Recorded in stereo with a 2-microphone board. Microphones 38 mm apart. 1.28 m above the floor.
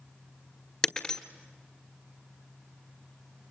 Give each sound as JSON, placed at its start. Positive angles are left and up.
{"t": 0.8, "sound": "breaking glass", "side_deg": 20, "distance_m": 1.3}